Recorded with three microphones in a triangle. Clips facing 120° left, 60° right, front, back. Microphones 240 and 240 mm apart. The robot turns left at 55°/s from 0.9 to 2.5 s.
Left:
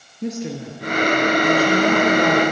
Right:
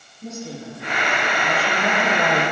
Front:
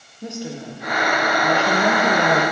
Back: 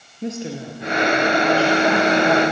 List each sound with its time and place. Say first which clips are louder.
0.2 s a woman speaking: left 6 dB, back 3 dB; 110° left, 5 m; by 2.4 s 30° left, 5 m